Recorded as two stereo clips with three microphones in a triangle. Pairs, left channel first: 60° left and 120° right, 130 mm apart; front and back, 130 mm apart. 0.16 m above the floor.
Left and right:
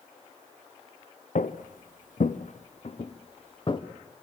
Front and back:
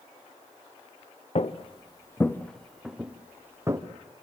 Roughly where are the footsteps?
Ahead left.